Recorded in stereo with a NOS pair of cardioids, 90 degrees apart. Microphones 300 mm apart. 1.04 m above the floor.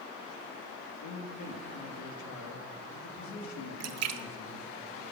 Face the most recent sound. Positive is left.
turn(degrees=-60)